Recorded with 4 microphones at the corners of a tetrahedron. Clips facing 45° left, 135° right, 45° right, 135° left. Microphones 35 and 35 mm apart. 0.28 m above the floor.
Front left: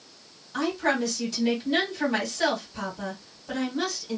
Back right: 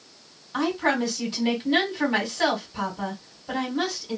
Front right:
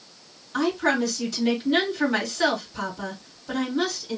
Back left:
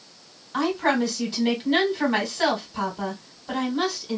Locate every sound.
0.5 s a woman speaking: 175° left, 1.8 m